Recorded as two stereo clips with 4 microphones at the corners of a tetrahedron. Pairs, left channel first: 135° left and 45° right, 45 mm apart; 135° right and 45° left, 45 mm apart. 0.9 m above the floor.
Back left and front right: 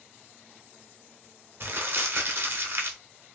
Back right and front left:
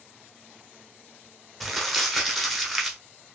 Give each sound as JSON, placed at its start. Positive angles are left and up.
{"t": 1.6, "sound": "crumpling", "azimuth_deg": -45, "distance_m": 0.9}